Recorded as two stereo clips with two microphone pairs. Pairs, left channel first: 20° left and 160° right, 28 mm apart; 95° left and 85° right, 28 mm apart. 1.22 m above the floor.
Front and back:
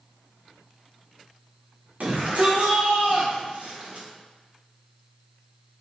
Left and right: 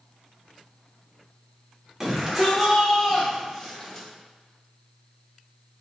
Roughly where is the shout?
Behind.